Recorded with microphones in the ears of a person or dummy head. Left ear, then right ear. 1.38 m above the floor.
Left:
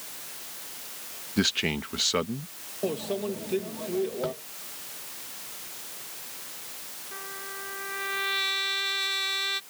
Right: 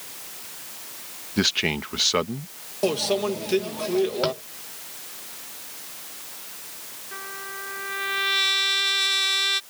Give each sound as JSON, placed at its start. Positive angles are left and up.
{"t": 1.4, "sound": "a man speaking", "side_deg": -20}
{"t": 2.8, "sound": "a microwave", "side_deg": -45}
{"t": 4.2, "sound": "tapping", "side_deg": -75}
{"t": 7.1, "sound": "a trumpet", "side_deg": -15}